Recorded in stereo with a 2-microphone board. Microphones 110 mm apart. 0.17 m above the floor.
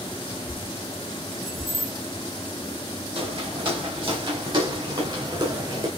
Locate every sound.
1.4 s keys jangling: 75° right (ahead or behind), 2.5 m
3.1 s footsteps: 55° right (ahead or behind), 5.5 m; by 5.9 s 40° right (ahead or behind), 5 m